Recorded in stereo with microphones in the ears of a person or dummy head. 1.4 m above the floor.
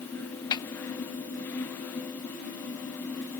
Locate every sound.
0.5 s a snare drum: 20° left (ahead or behind)